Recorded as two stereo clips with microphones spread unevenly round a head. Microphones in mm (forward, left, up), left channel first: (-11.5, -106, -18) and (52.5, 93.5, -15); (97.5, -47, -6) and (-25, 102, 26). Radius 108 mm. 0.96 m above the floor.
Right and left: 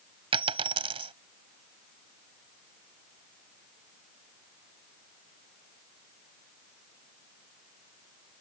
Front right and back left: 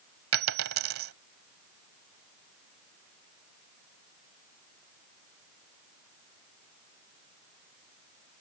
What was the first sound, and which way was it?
A dropped coin, 140° left.